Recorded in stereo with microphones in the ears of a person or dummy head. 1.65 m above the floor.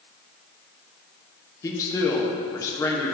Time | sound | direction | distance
1.6 | a man speaking | 25° left (ahead or behind) | 1.0 m